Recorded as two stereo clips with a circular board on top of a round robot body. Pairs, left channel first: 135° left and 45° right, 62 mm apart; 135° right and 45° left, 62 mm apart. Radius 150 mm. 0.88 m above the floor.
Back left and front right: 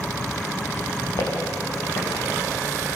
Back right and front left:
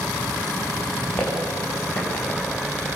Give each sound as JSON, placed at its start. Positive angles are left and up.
{"t": 1.2, "sound": "footsteps", "azimuth_deg": 165, "distance_m": 7.5}